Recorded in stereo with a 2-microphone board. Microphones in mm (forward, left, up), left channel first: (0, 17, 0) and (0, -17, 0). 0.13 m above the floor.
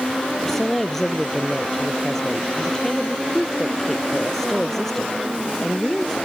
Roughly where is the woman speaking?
Centre.